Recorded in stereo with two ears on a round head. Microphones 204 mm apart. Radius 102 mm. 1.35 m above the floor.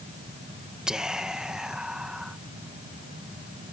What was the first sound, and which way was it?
Whispering, 5° right (ahead or behind).